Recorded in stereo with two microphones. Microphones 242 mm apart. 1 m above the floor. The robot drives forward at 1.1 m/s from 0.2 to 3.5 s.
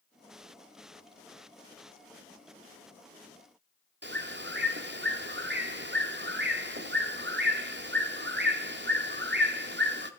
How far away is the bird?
About 1.6 m.